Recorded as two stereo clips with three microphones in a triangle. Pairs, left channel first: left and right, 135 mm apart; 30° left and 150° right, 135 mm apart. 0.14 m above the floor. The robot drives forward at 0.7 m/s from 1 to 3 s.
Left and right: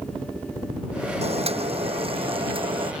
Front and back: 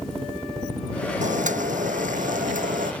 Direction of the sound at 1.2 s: 130° right.